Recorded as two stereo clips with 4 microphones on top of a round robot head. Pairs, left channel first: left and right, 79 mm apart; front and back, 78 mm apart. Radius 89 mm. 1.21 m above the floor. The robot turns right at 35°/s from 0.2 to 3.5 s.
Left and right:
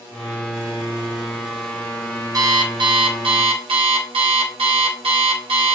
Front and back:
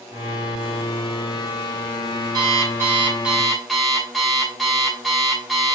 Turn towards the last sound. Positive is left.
turn(degrees=-90)